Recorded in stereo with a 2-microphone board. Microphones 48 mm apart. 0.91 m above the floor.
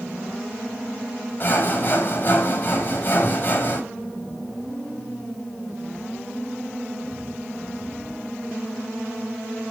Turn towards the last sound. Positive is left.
turn(degrees=45)  # may be behind; listen again after turning